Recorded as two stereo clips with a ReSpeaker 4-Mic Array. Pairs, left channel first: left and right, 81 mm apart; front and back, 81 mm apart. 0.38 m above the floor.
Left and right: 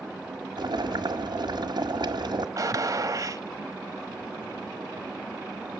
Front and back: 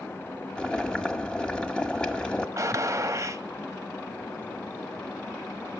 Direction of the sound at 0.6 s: 80° right.